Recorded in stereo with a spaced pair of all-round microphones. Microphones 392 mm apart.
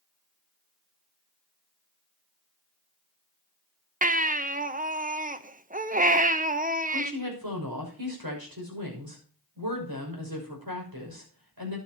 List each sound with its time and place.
4.0 s a baby crying: 20° right (ahead or behind), 0.7 m
6.9 s a woman speaking: 60° right (ahead or behind), 6 m